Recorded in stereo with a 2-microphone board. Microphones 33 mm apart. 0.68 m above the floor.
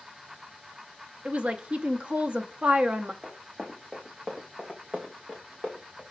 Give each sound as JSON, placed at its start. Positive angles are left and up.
{"t": 1.2, "sound": "a woman speaking", "side_deg": -40, "distance_m": 0.6}
{"t": 3.2, "sound": "running footsteps", "side_deg": -10, "distance_m": 2.5}